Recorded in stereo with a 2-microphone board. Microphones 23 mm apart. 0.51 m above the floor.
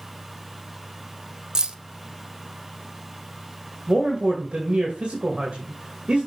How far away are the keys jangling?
About 0.6 m.